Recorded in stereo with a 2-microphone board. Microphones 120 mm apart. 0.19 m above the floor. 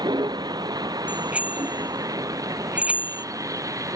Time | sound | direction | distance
0.0 | a vehicle | 35° right (ahead or behind) | ?
1.1 | a bicycle bell | 10° right (ahead or behind) | ?